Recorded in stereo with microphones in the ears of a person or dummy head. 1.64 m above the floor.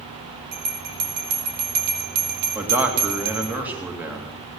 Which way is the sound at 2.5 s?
10° right (ahead or behind).